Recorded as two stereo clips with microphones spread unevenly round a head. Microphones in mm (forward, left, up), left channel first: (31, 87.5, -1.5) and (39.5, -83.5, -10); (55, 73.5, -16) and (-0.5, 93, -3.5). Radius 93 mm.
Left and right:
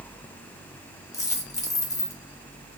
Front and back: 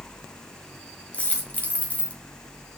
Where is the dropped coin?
45° left, 1.3 m.